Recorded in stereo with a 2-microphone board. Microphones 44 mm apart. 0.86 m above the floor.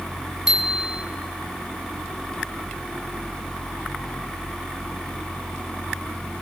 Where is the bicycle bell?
15° right (ahead or behind), 5 m.